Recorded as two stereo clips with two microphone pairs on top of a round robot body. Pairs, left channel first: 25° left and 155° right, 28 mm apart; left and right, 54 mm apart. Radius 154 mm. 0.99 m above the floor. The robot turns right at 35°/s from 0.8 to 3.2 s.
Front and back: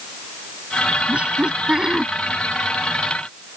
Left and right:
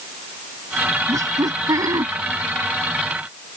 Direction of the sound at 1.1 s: 110° right.